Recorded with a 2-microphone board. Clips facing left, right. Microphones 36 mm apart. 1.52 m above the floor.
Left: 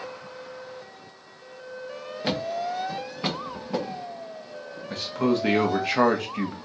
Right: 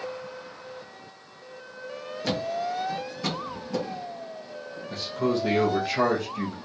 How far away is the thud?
About 1.2 m.